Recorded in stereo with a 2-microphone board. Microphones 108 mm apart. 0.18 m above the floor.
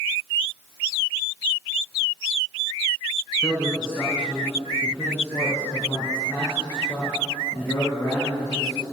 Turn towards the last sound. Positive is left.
turn(degrees=50)  # may be behind; listen again after turning